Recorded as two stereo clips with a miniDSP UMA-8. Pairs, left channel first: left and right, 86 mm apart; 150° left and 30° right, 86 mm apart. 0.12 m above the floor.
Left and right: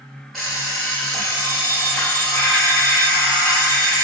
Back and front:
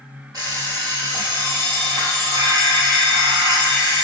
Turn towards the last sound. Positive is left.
turn(degrees=0)